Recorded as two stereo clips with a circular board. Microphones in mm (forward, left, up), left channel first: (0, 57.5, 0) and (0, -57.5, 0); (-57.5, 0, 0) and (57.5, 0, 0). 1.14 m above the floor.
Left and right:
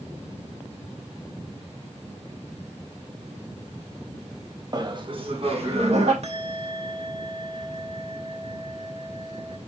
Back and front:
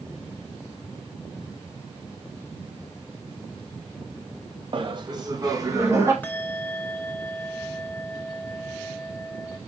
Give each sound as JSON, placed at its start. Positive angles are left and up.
{"t": 4.7, "sound": "laughter", "azimuth_deg": -40, "distance_m": 1.0}
{"t": 6.2, "sound": "a bell", "azimuth_deg": -105, "distance_m": 1.4}